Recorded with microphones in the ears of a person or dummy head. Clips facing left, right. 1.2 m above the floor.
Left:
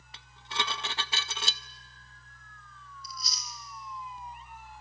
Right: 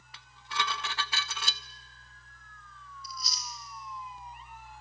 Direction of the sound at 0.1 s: 25° left (ahead or behind).